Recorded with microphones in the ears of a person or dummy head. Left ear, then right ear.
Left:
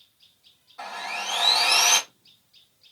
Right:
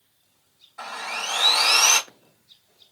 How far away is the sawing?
About 1.6 m.